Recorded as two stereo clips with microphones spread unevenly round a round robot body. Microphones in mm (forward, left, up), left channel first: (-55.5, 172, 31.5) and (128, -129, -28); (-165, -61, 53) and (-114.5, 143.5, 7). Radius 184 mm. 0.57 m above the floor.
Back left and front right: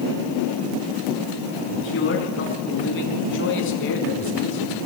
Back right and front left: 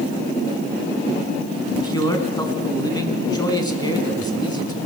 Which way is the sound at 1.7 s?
175° right.